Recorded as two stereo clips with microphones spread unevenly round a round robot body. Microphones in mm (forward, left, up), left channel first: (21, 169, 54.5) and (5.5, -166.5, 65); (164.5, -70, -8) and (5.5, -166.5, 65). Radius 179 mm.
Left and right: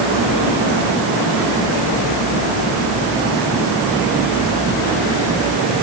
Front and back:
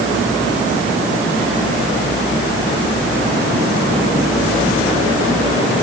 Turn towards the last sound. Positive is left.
No sound to turn to.